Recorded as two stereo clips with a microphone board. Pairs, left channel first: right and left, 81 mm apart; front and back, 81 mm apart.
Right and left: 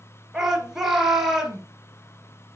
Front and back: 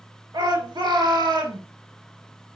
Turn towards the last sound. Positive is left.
turn(degrees=170)